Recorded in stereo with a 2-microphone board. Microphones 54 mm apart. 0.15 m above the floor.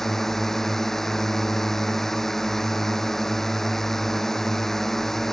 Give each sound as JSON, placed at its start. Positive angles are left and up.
{"t": 0.0, "sound": "a drone", "side_deg": 5}